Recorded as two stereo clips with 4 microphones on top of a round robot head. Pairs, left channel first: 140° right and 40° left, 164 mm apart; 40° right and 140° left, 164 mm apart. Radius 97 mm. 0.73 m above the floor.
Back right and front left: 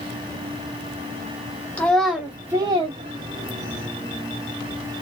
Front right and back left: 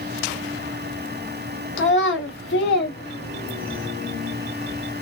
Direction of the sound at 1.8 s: 55° right.